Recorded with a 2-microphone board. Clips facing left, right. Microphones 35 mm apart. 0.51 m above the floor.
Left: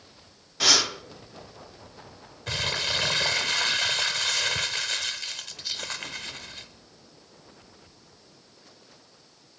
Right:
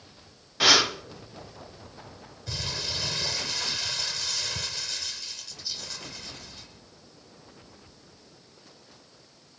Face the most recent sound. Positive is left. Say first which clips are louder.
# left 6 dB
turn(degrees=70)  # may be behind; listen again after turning